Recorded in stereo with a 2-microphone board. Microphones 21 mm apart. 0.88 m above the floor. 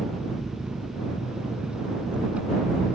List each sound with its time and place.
0.0 s an engine running: 85° right